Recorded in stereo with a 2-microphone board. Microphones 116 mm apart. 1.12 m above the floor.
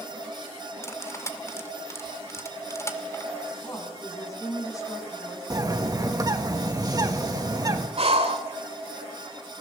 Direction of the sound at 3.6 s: 30° left (ahead or behind).